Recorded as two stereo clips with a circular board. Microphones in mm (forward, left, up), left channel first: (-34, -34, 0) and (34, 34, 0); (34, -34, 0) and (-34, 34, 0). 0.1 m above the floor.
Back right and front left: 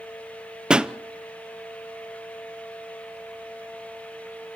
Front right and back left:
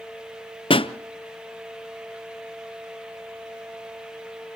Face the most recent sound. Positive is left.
turn(degrees=-35)